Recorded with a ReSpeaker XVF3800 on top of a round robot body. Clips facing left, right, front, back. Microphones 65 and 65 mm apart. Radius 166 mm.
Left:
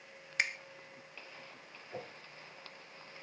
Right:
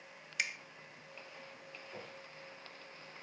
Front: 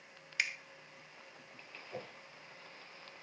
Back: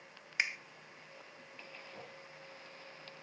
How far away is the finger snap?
About 0.7 m.